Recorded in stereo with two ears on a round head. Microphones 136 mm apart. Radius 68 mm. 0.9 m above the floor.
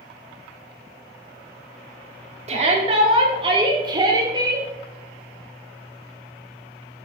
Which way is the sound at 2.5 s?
45° right (ahead or behind).